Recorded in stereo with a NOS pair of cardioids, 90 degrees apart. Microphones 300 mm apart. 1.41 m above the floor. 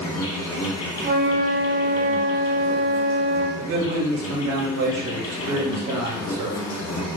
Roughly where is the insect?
Ahead left.